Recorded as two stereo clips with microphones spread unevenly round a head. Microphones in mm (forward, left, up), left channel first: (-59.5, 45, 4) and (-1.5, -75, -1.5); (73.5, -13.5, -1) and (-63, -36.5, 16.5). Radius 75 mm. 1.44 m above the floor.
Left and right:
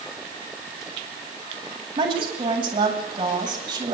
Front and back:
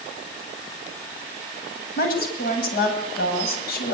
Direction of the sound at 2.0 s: 5° right.